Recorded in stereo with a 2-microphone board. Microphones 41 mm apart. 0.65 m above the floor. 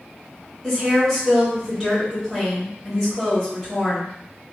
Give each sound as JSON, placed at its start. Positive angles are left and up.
{"t": 0.6, "sound": "a woman speaking", "side_deg": 0, "distance_m": 1.6}